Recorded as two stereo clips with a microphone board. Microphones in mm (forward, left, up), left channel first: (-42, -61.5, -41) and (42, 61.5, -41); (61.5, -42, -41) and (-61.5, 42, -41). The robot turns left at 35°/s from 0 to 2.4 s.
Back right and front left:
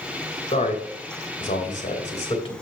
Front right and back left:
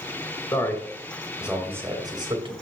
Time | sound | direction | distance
0.5 | a man speaking | 100° right | 2.5 m